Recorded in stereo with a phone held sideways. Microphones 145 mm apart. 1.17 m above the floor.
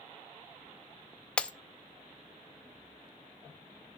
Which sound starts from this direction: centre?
Breaking glass, at 1.4 s.